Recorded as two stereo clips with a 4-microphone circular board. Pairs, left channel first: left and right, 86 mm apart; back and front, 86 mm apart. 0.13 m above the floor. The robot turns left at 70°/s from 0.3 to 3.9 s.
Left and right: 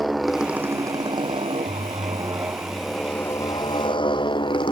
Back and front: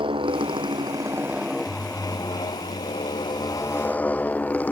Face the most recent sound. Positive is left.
turn(degrees=110)